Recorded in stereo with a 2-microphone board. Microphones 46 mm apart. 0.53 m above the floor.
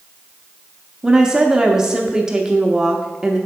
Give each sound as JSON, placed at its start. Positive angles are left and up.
{"t": 1.0, "sound": "a woman speaking", "side_deg": -15, "distance_m": 0.7}